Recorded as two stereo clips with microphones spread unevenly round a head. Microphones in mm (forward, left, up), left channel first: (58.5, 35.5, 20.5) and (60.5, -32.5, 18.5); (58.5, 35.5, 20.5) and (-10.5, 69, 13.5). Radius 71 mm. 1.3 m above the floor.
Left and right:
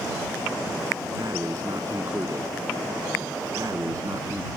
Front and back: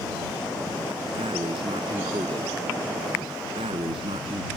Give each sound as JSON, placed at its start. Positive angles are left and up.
{"t": 1.2, "sound": "breathing", "azimuth_deg": -155}